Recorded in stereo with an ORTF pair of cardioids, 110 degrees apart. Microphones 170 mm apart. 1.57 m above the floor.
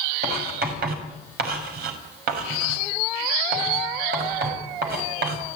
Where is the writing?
70° right, 6 m.